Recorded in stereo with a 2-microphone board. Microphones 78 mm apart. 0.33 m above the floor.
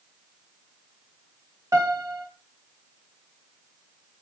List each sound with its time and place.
1.7 s a piano: 45° right (ahead or behind), 0.8 m